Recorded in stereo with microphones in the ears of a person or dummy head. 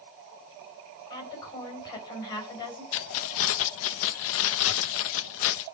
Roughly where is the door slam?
No door slam in this recording.